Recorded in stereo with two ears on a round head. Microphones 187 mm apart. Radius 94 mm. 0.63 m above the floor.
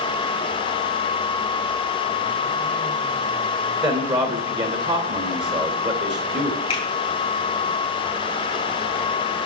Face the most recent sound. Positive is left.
turn(degrees=30)  # may be behind; listen again after turning